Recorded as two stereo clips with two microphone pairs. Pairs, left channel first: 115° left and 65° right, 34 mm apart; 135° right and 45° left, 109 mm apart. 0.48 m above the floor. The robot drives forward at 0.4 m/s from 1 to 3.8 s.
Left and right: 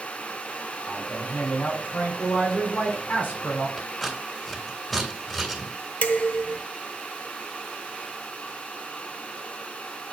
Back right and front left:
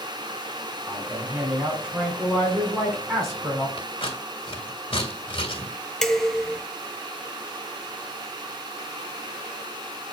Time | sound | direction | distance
0.9 | a man speaking | 100° left | 4 m
3.8 | scissors | 165° right | 2.5 m
6.0 | dishes clattering | 140° left | 0.8 m